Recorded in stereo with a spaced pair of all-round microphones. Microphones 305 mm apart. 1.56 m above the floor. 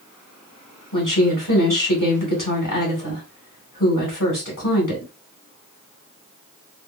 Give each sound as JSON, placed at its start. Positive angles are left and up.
{"t": 0.9, "sound": "a woman speaking", "side_deg": 90, "distance_m": 2.0}